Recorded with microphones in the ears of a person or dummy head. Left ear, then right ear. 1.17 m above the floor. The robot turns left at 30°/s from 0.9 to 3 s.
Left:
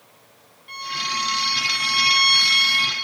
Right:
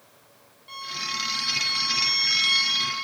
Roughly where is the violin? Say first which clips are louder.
Left 5 dB; behind.